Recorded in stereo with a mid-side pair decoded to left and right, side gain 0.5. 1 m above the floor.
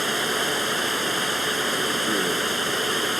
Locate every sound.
0.0 s running water: 5° right